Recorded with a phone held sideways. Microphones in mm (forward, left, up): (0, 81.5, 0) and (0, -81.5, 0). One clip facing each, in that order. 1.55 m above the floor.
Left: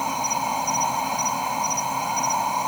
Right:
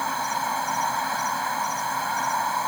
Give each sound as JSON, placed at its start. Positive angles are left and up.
{"t": 0.0, "sound": "an insect", "side_deg": 15}